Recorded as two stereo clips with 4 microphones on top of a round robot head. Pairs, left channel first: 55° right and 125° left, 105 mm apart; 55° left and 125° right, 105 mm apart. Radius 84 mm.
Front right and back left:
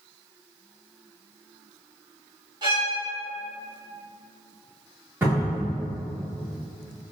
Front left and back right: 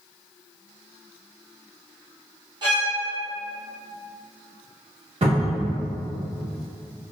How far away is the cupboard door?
About 1.4 m.